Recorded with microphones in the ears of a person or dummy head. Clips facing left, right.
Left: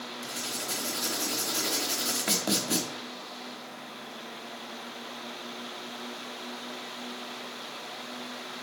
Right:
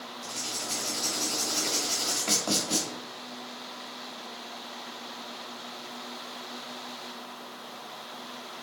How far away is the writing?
About 1.1 m.